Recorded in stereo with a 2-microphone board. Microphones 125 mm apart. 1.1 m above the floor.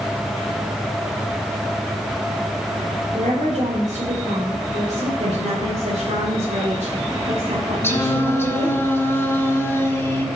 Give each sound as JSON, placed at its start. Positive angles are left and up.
{"t": 3.1, "sound": "a woman speaking", "side_deg": -70, "distance_m": 4.5}
{"t": 5.2, "sound": "a woman speaking", "side_deg": -55, "distance_m": 5.0}
{"t": 7.8, "sound": "singing", "side_deg": 20, "distance_m": 1.2}